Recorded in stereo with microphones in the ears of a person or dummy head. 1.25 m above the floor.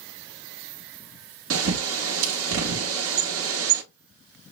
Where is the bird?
70° right (ahead or behind), 0.9 m.